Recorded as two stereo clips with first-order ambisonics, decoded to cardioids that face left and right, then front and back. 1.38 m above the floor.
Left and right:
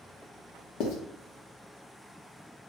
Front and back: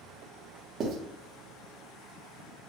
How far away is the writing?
About 0.9 m.